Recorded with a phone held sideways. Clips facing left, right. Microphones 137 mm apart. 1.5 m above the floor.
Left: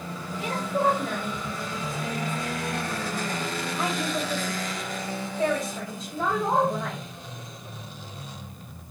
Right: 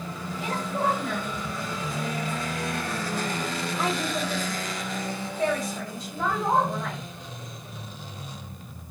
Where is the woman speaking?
15° left (ahead or behind), 1.4 m.